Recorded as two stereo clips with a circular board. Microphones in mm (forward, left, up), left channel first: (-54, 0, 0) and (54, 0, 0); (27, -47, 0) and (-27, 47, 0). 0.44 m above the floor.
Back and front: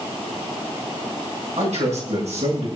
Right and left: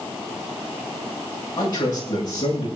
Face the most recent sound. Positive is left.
turn(degrees=-10)